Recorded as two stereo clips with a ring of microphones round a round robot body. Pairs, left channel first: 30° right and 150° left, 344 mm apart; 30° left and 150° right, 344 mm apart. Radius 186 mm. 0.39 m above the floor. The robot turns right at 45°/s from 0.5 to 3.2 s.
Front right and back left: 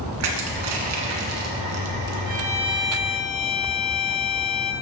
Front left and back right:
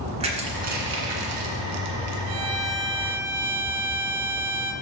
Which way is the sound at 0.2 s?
140° left.